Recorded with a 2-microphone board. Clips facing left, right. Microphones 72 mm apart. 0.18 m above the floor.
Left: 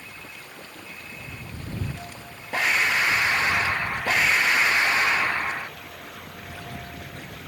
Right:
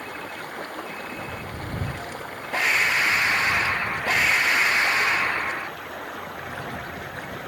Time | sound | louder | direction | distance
0.0 | running water | right 9 dB | 60° right (ahead or behind) | ?